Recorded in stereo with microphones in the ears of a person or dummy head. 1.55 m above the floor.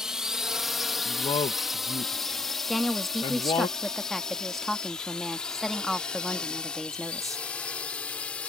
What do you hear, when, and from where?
0.0 s a drone: 5° right (ahead or behind); by 8.5 s 5° left (ahead or behind)
1.1 s a man speaking: 25° left (ahead or behind)
2.7 s a woman speaking: 5° left (ahead or behind)